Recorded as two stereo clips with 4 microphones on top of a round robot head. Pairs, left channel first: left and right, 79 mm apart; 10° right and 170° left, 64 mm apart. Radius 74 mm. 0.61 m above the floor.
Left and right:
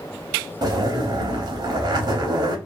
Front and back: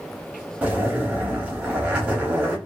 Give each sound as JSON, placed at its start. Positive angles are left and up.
{"t": 0.6, "sound": "a zipper", "azimuth_deg": -120, "distance_m": 1.0}